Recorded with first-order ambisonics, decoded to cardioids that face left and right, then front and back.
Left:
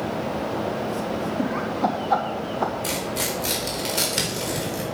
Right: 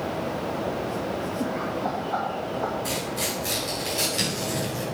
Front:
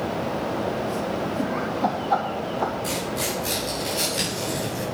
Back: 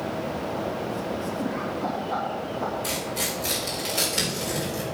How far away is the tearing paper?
About 4 m.